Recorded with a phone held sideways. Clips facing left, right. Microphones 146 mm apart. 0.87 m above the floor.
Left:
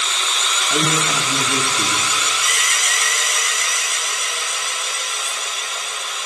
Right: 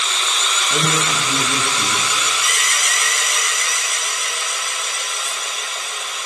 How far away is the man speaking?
About 0.7 m.